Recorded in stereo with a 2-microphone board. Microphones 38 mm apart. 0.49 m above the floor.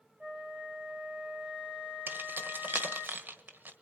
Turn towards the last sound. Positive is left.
turn(degrees=-60)  # may be behind; listen again after turning